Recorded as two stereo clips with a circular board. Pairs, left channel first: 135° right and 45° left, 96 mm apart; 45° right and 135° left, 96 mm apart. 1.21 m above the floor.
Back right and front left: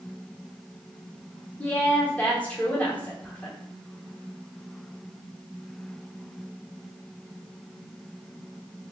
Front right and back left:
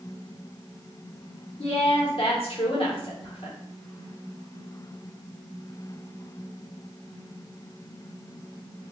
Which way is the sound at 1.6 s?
60° right.